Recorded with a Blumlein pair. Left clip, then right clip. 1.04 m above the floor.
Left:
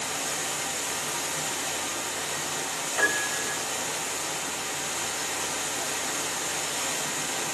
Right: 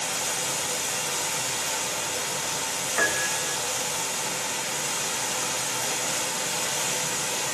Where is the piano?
65° right, 1.7 m.